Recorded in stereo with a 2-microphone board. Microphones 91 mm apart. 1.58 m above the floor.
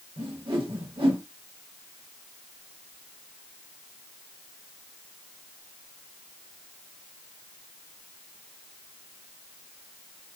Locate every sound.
0.2 s a whoosh: 80° right, 1.0 m